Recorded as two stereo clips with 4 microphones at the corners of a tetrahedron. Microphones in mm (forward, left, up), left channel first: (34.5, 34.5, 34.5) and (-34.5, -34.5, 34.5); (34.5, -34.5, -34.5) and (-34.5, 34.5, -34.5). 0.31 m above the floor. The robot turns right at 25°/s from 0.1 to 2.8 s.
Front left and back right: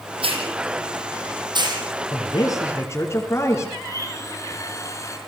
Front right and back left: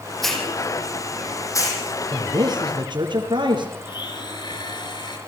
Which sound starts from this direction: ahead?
A blender, at 3.8 s.